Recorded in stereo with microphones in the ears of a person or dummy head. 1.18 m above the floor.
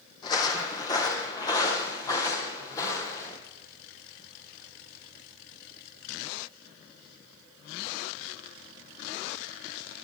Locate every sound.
0.2 s footsteps: 20° left (ahead or behind), 2.5 m